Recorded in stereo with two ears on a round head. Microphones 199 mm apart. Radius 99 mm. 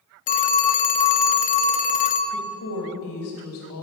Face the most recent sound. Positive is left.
turn(degrees=65)  # may be behind; listen again after turning